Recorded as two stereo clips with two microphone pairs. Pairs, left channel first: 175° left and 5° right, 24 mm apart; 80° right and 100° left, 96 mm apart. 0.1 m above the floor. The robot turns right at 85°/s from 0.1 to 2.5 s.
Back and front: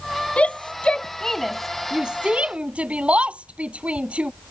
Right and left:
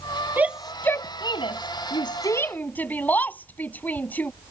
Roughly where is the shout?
Behind.